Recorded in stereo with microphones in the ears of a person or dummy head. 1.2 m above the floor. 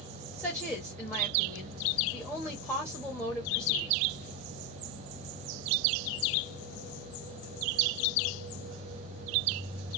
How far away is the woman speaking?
About 1.3 m.